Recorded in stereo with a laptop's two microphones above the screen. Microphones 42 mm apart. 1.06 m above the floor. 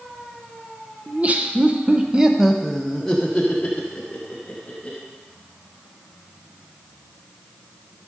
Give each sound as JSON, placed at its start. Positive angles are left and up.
{"t": 1.1, "sound": "laughter", "side_deg": -35, "distance_m": 1.0}